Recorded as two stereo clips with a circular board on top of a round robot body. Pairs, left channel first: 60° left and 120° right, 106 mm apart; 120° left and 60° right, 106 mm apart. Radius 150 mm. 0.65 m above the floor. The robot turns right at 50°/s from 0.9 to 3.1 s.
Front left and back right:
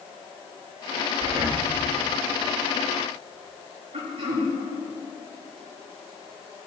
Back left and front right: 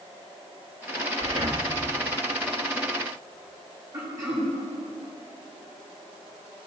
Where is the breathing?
100° right, 1.5 m; by 1.7 s 75° right, 1.5 m.